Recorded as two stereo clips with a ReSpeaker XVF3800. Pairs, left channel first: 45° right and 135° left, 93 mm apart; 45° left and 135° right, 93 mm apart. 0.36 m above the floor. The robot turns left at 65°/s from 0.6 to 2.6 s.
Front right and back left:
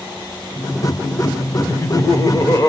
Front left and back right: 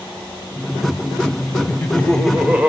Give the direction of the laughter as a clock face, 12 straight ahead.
12 o'clock.